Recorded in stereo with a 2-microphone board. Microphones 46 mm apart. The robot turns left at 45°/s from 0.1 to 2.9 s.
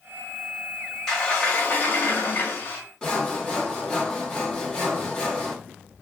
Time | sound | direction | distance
1.1 | a sliding door | 175° left | 1.2 m
3.0 | sawing | 15° left (ahead or behind) | 1.0 m